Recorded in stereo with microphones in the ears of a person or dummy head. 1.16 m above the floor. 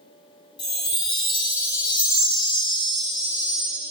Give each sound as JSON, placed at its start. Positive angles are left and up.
{"t": 0.6, "sound": "a chime", "side_deg": 30, "distance_m": 1.4}